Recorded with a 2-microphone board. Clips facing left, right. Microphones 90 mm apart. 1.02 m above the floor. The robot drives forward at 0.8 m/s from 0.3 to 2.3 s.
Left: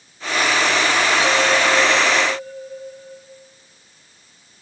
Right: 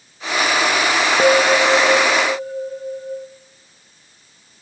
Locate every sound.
1.2 s a bell: 60° right (ahead or behind), 1.1 m; by 3.3 s 40° right (ahead or behind), 1.5 m